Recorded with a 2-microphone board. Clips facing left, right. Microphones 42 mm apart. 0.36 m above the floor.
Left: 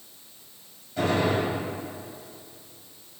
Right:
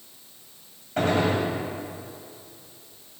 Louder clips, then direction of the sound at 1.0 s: Right 1 dB; 55° right (ahead or behind).